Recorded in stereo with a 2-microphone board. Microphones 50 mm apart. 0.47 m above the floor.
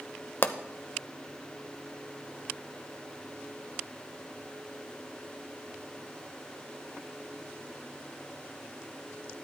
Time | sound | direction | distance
0.4 | a pop | 45° left (ahead or behind) | 0.7 m